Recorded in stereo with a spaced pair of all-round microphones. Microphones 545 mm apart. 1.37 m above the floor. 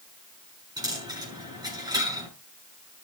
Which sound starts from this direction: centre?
A dropped coin, at 0.8 s.